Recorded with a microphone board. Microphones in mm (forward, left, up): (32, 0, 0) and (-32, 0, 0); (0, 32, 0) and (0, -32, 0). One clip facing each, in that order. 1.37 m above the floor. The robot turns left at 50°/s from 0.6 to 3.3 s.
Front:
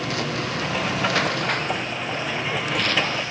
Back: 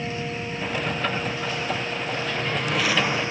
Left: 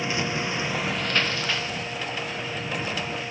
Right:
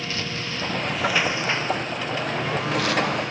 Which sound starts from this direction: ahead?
A lawn mower, at 0.0 s.